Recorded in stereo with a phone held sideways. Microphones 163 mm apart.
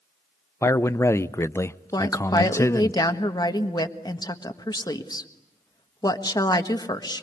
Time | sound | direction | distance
0.6 | a man speaking | 20° left (ahead or behind) | 0.6 m
1.9 | a woman speaking | 25° left (ahead or behind) | 1.5 m